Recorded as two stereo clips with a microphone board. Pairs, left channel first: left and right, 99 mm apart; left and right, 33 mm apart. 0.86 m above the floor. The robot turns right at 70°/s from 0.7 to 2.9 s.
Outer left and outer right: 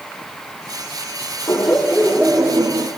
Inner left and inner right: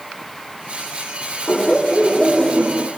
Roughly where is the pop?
No pop in this recording.